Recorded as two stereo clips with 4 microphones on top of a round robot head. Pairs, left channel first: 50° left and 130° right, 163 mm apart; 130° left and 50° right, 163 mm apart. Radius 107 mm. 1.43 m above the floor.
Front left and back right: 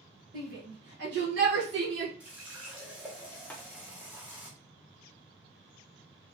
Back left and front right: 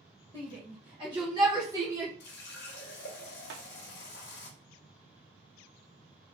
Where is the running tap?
150° left, 0.7 m.